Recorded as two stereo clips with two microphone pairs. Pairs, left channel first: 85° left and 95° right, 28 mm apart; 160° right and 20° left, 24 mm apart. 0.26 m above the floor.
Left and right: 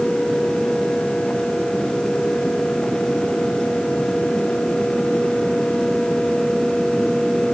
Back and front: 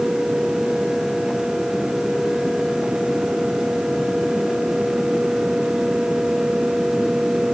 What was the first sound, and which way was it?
Only background noise.